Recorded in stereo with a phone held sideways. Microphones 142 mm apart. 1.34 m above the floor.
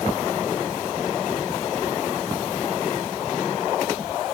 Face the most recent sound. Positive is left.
No sound to turn to.